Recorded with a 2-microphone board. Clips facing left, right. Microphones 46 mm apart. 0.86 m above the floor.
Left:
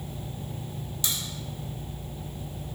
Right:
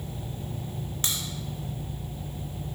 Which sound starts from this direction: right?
A crack, at 1.0 s.